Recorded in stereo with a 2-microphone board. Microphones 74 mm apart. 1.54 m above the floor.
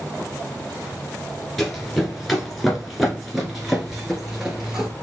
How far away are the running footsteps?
About 1.5 m.